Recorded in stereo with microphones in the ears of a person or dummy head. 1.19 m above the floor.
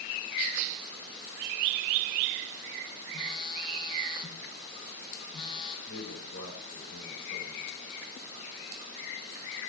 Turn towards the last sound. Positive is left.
turn(degrees=70)  # may be behind; listen again after turning